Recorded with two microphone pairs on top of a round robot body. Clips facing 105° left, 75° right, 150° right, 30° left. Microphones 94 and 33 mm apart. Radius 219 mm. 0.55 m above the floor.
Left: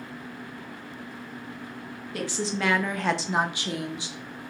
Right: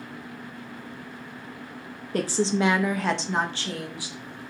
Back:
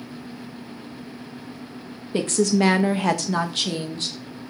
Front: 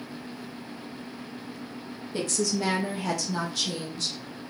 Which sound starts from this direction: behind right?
A woman speaking, at 2.1 s.